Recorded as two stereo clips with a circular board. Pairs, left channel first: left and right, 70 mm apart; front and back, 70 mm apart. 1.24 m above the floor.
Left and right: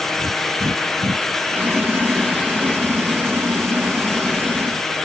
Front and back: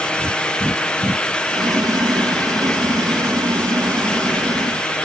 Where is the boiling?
150° right.